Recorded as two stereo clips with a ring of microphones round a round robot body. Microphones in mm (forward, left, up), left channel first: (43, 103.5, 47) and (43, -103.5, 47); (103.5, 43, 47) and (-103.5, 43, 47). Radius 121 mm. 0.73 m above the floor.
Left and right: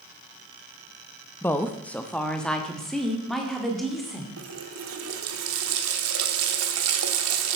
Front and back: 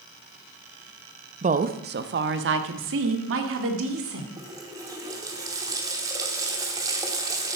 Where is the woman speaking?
165° left, 0.7 m; by 4.3 s straight behind, 2 m.